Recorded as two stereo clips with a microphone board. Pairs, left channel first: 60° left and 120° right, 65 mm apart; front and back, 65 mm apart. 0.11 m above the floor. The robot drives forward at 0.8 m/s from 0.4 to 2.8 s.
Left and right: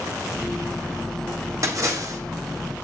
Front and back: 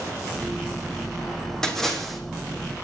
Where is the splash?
80° right, 3 m; by 2.2 s 90° right, 3 m.